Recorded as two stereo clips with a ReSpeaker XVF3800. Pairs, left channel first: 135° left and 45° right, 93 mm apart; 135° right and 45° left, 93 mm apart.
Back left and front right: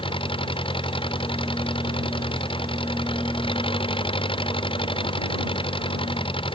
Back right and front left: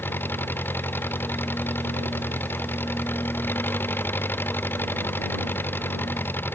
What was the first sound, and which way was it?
An engine running, 155° left.